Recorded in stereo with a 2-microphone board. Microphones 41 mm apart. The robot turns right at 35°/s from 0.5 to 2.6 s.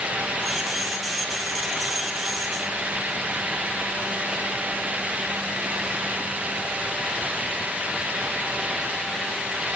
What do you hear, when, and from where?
Only background noise.